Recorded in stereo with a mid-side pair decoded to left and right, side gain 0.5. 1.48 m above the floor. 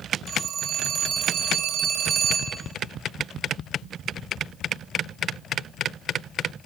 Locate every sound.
0.3 s a phone ringing: 55° right, 5 m